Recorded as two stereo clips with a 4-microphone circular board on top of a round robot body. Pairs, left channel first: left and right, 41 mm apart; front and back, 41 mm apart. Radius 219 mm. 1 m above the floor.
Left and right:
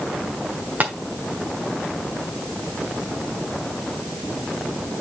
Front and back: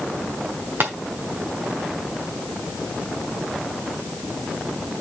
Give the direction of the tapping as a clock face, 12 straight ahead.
5 o'clock.